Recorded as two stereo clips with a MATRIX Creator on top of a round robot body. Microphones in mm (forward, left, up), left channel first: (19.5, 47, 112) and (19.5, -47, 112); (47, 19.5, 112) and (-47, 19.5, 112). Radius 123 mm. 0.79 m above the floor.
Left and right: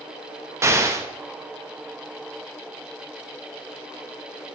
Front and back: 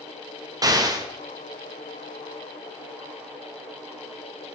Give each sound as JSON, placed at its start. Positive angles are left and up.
{"t": 0.6, "sound": "an explosion", "azimuth_deg": -145, "distance_m": 1.6}